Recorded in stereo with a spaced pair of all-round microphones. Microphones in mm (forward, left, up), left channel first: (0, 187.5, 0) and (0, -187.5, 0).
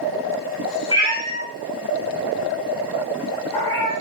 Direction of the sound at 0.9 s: 15° left (ahead or behind).